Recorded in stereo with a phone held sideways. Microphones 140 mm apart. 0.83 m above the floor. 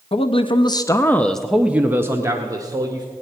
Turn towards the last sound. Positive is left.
turn(degrees=-25)  # may be behind; listen again after turning